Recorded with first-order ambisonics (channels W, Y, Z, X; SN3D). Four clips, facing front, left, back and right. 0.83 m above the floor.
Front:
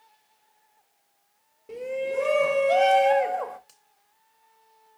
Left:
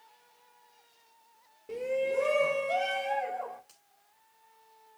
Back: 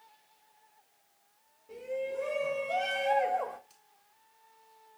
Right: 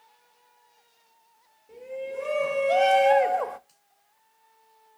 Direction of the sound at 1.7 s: 45° left.